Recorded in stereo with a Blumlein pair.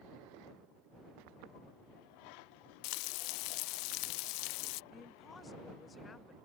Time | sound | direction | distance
2.8 | frying | 45° left | ?
4.9 | a woman speaking | 15° left | ?